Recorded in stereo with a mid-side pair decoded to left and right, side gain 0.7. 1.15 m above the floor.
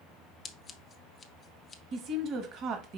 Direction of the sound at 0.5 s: 30° left.